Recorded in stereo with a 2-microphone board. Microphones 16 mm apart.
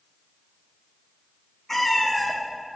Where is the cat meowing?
10° left (ahead or behind), 0.8 m.